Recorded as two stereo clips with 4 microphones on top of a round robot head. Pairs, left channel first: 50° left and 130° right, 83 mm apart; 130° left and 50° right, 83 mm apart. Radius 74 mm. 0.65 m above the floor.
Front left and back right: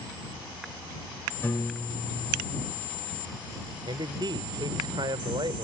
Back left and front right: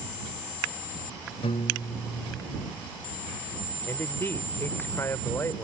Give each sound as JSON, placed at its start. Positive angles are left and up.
{"t": 1.4, "sound": "a piano", "azimuth_deg": 120}
{"t": 3.9, "sound": "a man speaking", "azimuth_deg": -165}